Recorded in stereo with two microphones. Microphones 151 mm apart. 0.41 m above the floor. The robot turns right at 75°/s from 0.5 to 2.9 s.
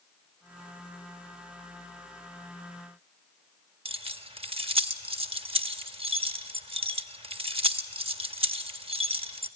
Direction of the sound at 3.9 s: 35° right (ahead or behind).